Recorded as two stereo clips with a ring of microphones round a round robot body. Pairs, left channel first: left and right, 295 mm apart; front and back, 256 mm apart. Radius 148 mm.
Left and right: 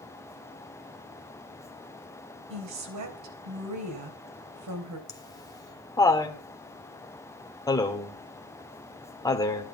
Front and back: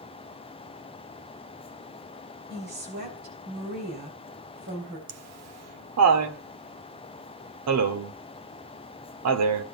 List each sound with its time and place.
2.5 s a woman speaking: 120° right, 3.5 m
5.1 s laughter: 170° left, 1.8 m